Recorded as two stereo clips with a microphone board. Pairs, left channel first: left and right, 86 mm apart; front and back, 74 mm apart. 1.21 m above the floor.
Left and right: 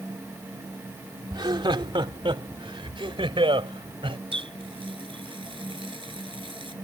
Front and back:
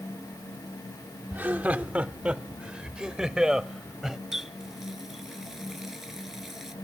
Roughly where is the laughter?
Behind right.